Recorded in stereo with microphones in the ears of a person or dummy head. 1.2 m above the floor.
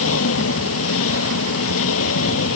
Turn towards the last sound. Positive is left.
turn(degrees=90)